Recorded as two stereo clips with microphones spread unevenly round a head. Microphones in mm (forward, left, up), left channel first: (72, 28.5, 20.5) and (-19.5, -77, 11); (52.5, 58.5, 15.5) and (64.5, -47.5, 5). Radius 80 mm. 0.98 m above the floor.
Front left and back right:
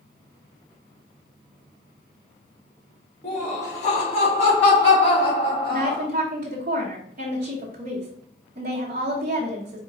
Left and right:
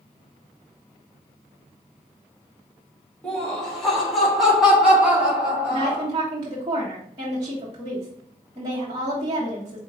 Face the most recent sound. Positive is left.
turn(degrees=-130)